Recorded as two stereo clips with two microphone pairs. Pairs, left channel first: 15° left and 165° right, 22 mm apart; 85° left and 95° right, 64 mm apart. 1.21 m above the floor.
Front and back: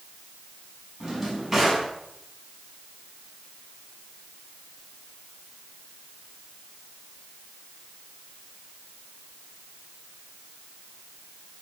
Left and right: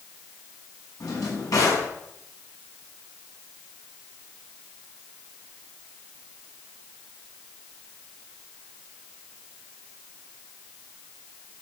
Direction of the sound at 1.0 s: 110° left.